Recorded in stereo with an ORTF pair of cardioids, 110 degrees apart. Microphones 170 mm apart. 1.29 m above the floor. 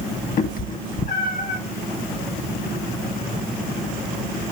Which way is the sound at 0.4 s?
55° left.